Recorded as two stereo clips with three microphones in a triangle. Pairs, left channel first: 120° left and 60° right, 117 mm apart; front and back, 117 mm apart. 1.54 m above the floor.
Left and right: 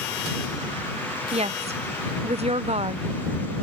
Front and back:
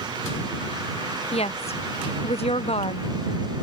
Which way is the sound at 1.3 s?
30° right.